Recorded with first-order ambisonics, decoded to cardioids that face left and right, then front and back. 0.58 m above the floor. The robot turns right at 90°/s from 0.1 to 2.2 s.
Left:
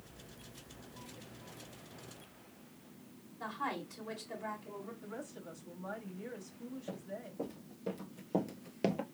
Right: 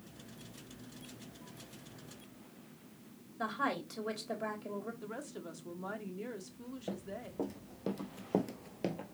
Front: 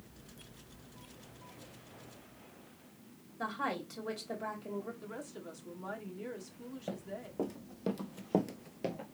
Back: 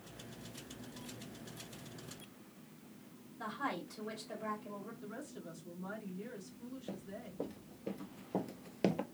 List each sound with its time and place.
3.4 s a woman speaking: 65° right, 3 m
5.0 s a woman speaking: 65° right, 1.2 m
6.9 s running footsteps: 30° right, 2.5 m; by 9.1 s 150° left, 0.8 m